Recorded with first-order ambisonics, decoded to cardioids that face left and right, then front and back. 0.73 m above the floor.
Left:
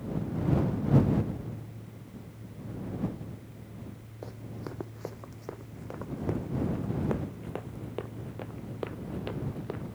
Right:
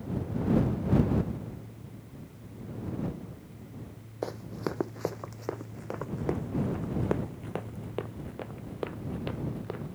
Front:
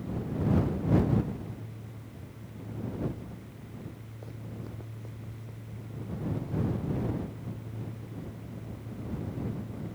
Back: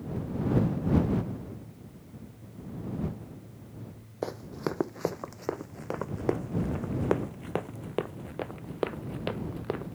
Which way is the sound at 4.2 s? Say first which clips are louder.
Right 8 dB, back 13 dB; 145° right.